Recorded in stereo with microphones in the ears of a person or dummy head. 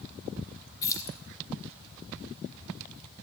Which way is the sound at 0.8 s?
20° left (ahead or behind).